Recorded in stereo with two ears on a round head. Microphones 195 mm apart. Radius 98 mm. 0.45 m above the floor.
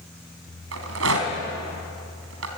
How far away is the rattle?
About 3.5 m.